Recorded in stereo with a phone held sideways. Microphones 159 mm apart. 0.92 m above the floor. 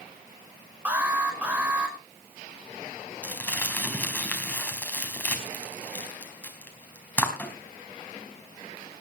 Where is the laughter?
No laughter in this recording.